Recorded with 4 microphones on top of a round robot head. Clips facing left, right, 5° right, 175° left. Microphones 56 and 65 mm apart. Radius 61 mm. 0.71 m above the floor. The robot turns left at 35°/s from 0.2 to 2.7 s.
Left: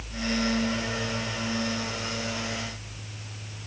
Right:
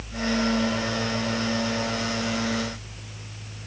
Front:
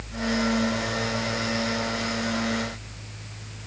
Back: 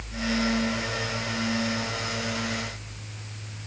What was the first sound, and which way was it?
Only background noise.